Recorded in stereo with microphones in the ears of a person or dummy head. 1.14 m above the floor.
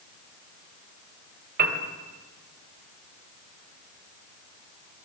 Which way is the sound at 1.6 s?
55° right (ahead or behind).